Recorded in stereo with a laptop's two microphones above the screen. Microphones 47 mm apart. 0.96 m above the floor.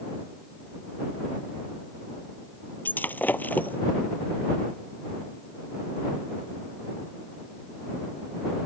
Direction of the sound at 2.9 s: 40° left (ahead or behind).